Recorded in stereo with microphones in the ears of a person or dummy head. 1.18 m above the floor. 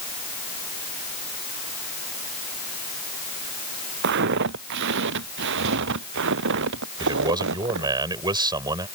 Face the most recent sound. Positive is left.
turn(degrees=-25)  # may be behind; listen again after turning